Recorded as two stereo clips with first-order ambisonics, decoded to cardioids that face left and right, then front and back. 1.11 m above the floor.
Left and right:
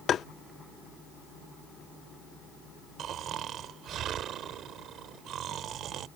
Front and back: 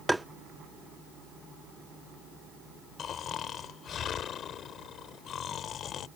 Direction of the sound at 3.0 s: 50° right.